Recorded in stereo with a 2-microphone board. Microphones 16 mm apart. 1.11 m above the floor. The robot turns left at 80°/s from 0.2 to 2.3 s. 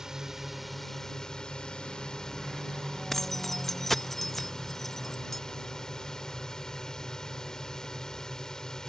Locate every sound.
0.0 s a drone: 145° right; by 8.9 s 45° left
3.1 s keys jangling: 20° left (ahead or behind)